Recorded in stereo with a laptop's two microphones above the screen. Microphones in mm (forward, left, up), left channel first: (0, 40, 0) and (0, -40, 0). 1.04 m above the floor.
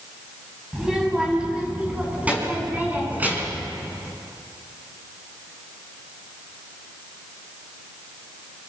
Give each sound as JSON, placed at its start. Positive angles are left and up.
{"t": 0.7, "sound": "a child speaking", "side_deg": -10, "distance_m": 5.0}